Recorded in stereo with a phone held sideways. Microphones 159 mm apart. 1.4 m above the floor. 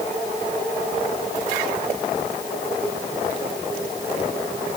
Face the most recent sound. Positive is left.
No sound to turn to.